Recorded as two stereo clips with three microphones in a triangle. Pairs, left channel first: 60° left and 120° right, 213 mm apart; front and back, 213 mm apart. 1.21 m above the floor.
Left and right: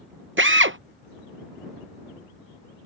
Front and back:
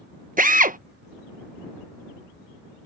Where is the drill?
135° right.